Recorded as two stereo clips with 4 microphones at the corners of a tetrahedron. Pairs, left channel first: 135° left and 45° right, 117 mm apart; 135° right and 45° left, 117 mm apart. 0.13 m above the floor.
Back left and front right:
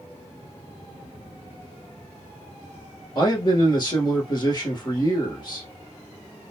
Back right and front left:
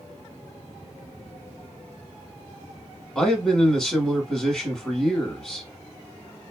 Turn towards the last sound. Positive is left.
turn(degrees=140)